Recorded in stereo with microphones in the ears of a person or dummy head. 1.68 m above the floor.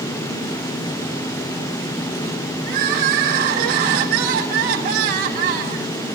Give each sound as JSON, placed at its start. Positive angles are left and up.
{"t": 2.7, "sound": "crying", "side_deg": -35, "distance_m": 1.4}